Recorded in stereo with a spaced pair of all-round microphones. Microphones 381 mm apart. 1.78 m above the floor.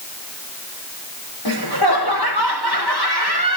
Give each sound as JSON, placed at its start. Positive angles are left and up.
{"t": 1.4, "sound": "laughter", "side_deg": 80, "distance_m": 5.5}